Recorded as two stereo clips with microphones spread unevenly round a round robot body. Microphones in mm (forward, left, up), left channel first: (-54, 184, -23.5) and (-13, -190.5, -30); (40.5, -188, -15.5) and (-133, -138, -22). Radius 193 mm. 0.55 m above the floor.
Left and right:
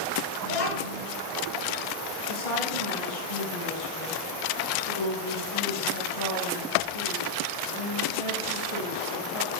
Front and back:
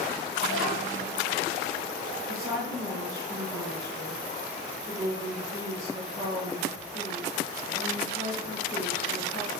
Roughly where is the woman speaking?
Left.